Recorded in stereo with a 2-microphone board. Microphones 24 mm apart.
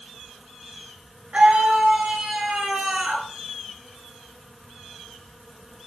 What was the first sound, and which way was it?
A scream, 45° right (ahead or behind).